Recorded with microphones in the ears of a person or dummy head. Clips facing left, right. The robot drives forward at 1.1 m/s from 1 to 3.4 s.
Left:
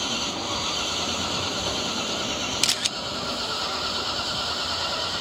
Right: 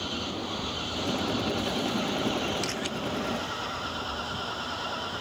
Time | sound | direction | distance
0.0 | an engine running | 65° left (ahead or behind) | ?
2.6 | a camera shutter | 45° left (ahead or behind) | ?